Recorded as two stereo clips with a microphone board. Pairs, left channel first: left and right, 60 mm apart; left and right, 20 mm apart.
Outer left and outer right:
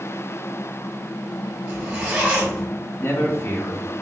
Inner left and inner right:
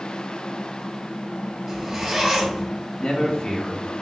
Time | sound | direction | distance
1.7 | a zipper | 35° right (ahead or behind) | 2.5 m
3.0 | a man speaking | 45° left (ahead or behind) | 1.2 m